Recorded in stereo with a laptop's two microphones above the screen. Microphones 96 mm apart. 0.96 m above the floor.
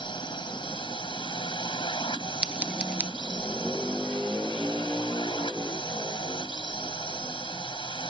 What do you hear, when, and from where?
0.0 s a drone: 55° left (ahead or behind)
2.4 s scissors: 10° right (ahead or behind)